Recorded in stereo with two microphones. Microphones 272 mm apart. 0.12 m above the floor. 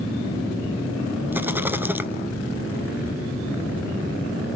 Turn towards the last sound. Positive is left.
turn(degrees=-5)  # may be behind; listen again after turning